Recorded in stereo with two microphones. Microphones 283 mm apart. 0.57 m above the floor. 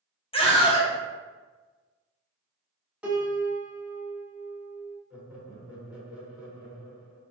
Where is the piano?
5° right (ahead or behind), 0.9 m.